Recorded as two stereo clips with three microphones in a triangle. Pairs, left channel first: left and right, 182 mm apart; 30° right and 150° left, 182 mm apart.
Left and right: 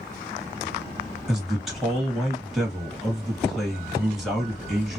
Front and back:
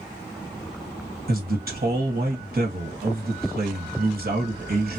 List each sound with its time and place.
1.3 s a man speaking: straight behind, 1.5 m